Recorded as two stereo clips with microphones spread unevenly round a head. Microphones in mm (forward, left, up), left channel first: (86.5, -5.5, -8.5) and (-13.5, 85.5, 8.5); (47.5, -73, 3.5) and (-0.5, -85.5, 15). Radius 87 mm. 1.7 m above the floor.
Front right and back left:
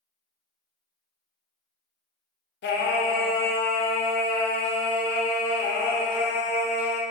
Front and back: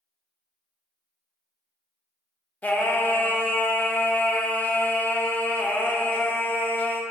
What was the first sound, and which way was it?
Singing, 45° right.